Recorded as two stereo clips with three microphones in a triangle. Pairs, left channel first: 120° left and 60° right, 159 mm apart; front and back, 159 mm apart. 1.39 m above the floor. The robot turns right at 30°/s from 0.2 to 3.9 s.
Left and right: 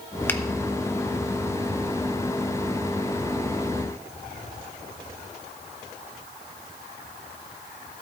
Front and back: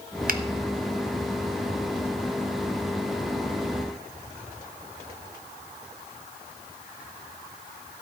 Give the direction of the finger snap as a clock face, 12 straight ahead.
5 o'clock.